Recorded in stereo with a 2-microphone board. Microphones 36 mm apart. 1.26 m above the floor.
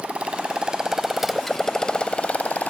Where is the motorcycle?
40° right (ahead or behind); by 2.7 s 50° left (ahead or behind).